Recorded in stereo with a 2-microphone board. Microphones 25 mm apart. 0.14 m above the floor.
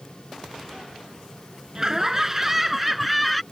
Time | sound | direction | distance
1.8 | laughter | 25° right (ahead or behind) | ?